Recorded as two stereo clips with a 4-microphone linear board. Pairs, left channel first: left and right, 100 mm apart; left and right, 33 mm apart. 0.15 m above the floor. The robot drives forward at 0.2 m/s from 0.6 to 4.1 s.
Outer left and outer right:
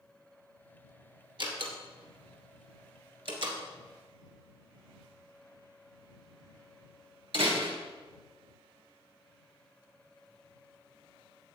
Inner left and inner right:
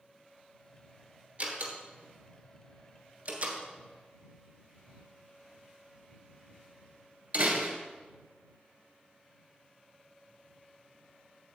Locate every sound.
1.4 s a door slam: 50° right (ahead or behind), 2 m; by 7.8 s 55° right (ahead or behind), 2 m